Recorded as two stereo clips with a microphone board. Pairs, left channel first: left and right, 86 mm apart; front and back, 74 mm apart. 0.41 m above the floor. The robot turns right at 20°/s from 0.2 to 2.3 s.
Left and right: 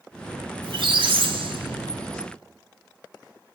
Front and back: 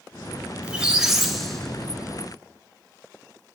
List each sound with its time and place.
0.6 s a squeak: 105° right, 0.5 m; by 2.2 s 70° right, 0.5 m